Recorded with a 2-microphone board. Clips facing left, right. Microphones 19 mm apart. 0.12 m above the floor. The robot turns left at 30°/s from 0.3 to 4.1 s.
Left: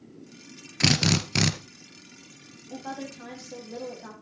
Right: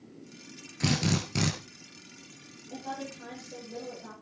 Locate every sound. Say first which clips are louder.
0.8 s a drill: left 6 dB; 45° left (ahead or behind), 1.6 m; by 1.5 s 30° left (ahead or behind), 1.6 m
2.7 s a woman speaking: left 2 dB; 135° left, 5 m; by 4.2 s 90° left, 5 m